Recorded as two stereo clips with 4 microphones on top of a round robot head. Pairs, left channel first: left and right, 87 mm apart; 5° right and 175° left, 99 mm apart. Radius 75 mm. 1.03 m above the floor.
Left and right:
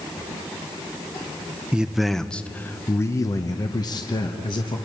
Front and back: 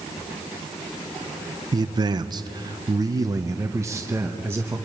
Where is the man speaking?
165° right, 0.9 m; by 4.8 s 110° left, 1.6 m.